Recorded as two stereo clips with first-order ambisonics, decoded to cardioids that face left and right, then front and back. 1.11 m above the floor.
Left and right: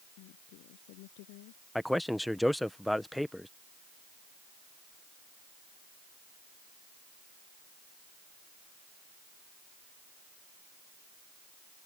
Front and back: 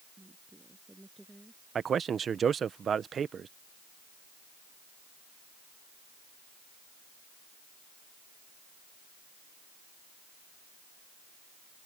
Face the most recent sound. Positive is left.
turn(degrees=175)